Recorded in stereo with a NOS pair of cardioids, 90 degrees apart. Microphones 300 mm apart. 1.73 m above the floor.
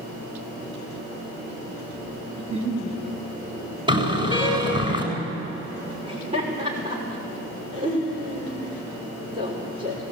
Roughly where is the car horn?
Ahead.